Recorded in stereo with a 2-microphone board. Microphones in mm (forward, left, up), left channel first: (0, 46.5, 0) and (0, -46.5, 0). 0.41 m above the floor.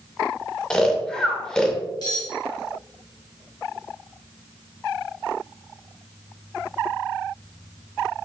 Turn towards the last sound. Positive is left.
turn(degrees=50)  # may be behind; listen again after turning